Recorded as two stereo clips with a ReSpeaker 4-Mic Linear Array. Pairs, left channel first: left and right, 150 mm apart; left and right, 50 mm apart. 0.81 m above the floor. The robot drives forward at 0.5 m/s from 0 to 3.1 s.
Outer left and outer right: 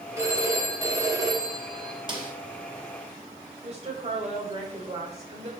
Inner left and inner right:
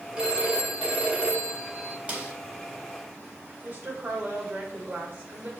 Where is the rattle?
No rattle in this recording.